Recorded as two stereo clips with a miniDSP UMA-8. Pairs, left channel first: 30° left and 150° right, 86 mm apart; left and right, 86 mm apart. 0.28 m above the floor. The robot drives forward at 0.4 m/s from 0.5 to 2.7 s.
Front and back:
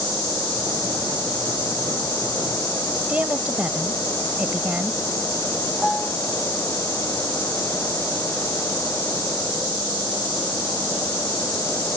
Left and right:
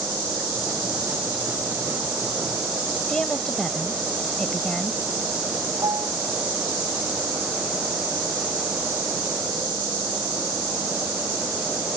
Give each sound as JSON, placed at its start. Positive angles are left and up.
{"t": 3.1, "sound": "a woman speaking", "azimuth_deg": 160}
{"t": 5.8, "sound": "a piano", "azimuth_deg": -55}